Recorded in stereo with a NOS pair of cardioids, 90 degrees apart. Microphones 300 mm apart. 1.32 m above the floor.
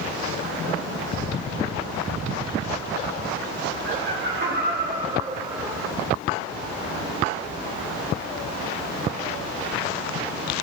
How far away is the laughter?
About 5.5 m.